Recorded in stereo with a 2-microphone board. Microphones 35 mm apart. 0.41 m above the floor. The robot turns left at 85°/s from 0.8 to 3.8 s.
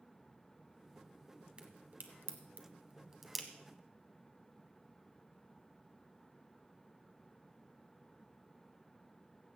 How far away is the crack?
About 1.3 m.